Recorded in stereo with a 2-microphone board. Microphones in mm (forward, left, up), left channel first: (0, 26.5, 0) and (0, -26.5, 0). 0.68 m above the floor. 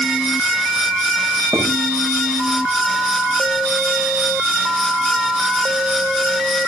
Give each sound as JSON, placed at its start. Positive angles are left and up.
{"t": 1.5, "sound": "writing", "side_deg": -45, "distance_m": 8.0}